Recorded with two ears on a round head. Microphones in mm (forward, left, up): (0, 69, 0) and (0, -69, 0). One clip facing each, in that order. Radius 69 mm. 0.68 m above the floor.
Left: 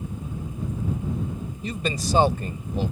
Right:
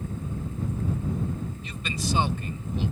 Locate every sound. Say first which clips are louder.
1.6 s a man speaking: left 7 dB; 35° left (ahead or behind)